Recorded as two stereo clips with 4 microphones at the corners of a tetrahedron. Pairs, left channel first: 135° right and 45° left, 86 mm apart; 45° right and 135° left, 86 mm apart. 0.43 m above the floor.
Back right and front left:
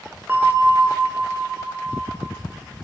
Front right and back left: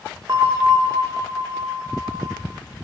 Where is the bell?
105° left, 0.5 m.